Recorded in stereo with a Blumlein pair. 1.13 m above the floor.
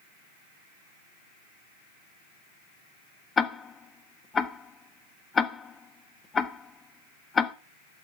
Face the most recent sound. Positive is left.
turn(degrees=20)